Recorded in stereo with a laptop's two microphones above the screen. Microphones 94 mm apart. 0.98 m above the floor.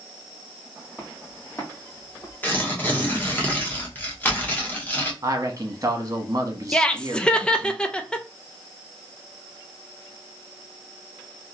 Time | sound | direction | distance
1.0 | footsteps | 15° left (ahead or behind) | 2.5 m
2.4 | tearing paper | 20° left (ahead or behind) | 1.0 m
5.2 | a man speaking | 40° right (ahead or behind) | 1.3 m
6.7 | laughter | 10° left (ahead or behind) | 0.5 m